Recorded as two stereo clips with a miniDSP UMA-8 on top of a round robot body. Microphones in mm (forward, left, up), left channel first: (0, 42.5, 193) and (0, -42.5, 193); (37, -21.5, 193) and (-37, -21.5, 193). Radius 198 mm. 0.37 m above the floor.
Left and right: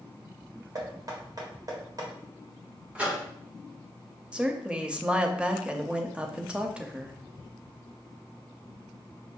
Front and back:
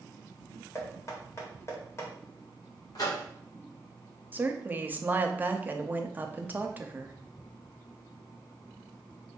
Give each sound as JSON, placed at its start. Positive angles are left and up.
{"t": 0.8, "sound": "knocking", "azimuth_deg": -50, "distance_m": 1.6}
{"t": 3.0, "sound": "a microwave", "azimuth_deg": -20, "distance_m": 1.8}
{"t": 4.3, "sound": "a woman speaking", "azimuth_deg": -155, "distance_m": 0.9}